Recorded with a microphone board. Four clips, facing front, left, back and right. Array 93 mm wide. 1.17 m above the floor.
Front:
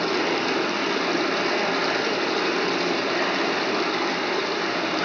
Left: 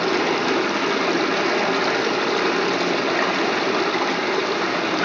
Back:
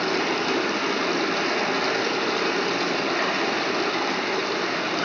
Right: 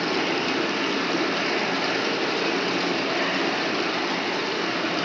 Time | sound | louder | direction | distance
0.0 | running water | left 4 dB, front 1 dB | 90° left | 1.0 m